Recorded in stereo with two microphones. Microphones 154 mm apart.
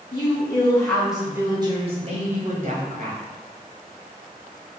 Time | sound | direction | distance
0.1 | a woman speaking | 35° left (ahead or behind) | 1.3 m